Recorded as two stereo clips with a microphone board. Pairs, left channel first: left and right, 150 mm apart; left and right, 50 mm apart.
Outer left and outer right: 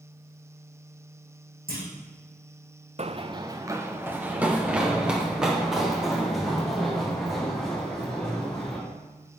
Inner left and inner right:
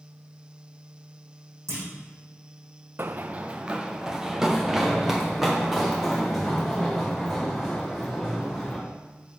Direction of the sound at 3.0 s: 45° right (ahead or behind).